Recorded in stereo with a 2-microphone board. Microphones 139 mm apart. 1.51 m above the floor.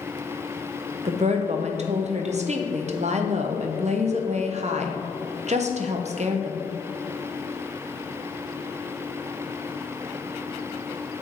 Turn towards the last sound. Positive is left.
turn(degrees=-55)  # may be behind; listen again after turning